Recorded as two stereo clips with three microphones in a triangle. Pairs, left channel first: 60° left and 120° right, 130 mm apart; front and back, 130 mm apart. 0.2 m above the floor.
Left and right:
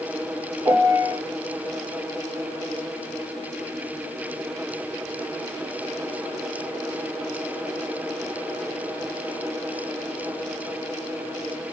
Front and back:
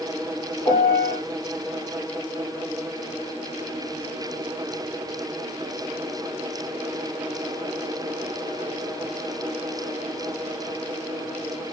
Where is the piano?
60° right, 1.4 m.